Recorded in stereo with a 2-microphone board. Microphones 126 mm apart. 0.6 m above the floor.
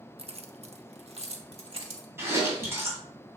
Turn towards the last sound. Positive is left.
turn(degrees=-20)  # may be behind; listen again after turning